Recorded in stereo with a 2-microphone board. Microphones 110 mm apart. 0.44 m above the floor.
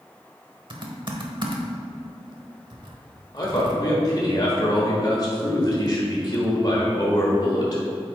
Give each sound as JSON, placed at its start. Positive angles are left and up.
{"t": 0.7, "sound": "typing on a keyboard", "side_deg": -45, "distance_m": 0.9}
{"t": 3.3, "sound": "a man speaking", "side_deg": 40, "distance_m": 1.3}